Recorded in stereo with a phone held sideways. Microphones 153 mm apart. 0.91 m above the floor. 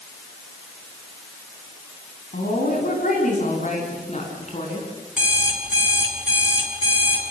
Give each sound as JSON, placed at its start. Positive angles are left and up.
{"t": 2.3, "sound": "a woman speaking", "side_deg": 70, "distance_m": 7.5}
{"t": 5.2, "sound": "an alarm clock", "side_deg": -5, "distance_m": 6.0}